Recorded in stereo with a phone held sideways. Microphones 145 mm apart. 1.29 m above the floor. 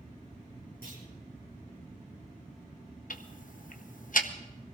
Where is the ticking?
65° left (ahead or behind), 0.9 m.